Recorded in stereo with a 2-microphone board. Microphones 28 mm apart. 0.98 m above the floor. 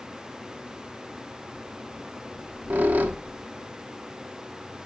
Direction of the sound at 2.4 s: 85° right.